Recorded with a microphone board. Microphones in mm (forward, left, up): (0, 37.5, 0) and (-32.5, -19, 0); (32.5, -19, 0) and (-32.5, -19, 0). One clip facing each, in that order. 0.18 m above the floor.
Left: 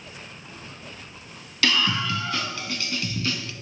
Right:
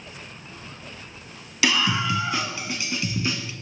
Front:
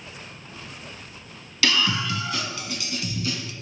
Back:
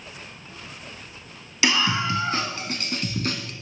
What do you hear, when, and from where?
1.6 s a scream: 170° right, 1.0 m; by 3.5 s 175° left, 1.6 m